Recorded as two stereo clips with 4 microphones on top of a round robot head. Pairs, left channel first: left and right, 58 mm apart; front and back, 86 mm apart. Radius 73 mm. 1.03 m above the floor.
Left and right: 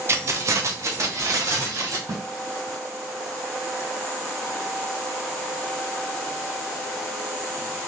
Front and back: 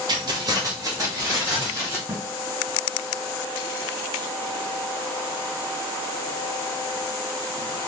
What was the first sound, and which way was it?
Keys jangling, 135° right.